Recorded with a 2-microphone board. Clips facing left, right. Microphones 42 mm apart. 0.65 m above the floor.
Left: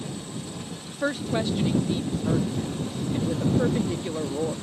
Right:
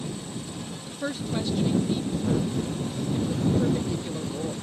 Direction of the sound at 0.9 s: 30° left (ahead or behind).